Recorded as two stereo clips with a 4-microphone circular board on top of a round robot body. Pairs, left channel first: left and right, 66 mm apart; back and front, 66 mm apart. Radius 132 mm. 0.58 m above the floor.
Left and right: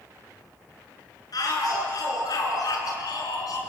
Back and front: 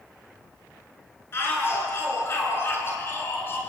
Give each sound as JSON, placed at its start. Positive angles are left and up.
{"t": 1.3, "sound": "a shout", "azimuth_deg": 125, "distance_m": 9.5}